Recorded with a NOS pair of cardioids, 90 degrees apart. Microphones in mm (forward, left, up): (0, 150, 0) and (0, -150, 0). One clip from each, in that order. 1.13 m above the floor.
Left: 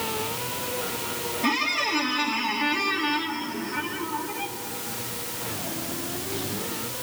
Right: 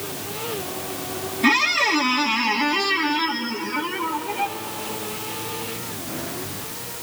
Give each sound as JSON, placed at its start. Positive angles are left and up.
{"t": 1.4, "sound": "a squeak", "azimuth_deg": -40, "distance_m": 1.4}